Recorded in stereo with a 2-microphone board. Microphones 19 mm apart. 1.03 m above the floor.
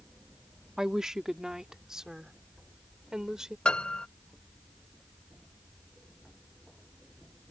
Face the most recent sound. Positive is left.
turn(degrees=60)  # may be behind; listen again after turning